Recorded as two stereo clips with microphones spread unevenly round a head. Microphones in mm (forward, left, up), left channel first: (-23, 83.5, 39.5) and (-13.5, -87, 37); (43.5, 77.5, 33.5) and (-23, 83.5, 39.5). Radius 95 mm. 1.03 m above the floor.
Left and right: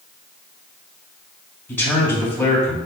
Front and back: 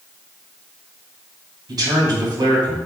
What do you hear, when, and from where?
1.7 s a man speaking: 175° left, 2.5 m